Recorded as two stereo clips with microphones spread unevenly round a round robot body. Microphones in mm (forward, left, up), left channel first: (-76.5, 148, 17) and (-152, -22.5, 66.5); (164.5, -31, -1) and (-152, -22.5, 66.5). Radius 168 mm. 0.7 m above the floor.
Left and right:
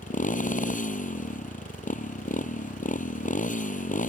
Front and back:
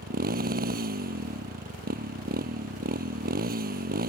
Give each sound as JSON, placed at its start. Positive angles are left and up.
{"t": 0.0, "sound": "a motorcycle", "azimuth_deg": 115}